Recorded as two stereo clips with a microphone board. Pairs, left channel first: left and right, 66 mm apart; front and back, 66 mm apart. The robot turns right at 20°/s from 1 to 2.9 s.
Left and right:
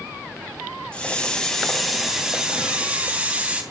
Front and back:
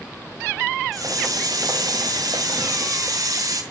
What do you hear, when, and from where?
0.9 s a hiss: 165° left, 2.5 m; by 3.6 s 160° right, 2.5 m